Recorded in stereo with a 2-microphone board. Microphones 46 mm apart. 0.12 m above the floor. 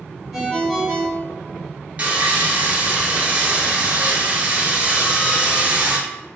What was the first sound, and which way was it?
A ringtone, 15° right (ahead or behind).